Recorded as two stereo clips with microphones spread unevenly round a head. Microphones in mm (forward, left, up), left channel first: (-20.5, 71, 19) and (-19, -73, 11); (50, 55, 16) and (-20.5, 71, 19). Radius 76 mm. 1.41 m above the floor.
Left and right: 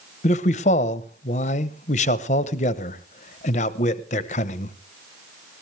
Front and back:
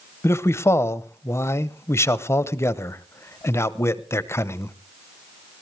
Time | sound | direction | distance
0.2 | a man speaking | 45° left | 0.9 m